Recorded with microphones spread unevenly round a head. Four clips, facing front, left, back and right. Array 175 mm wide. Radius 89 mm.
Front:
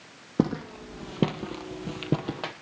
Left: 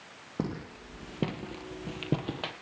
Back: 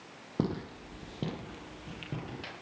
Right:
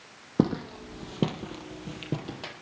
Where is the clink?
I don't hear a clink.